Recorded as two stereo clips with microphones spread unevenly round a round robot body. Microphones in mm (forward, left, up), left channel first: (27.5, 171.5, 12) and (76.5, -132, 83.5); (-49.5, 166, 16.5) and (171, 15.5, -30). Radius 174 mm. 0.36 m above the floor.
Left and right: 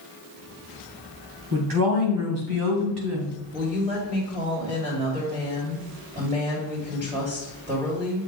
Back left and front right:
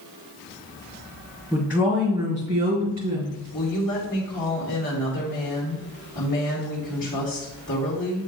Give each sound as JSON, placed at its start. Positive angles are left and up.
{"t": 1.5, "sound": "a woman speaking", "azimuth_deg": -115, "distance_m": 2.5}
{"t": 3.5, "sound": "a woman speaking", "azimuth_deg": -155, "distance_m": 2.5}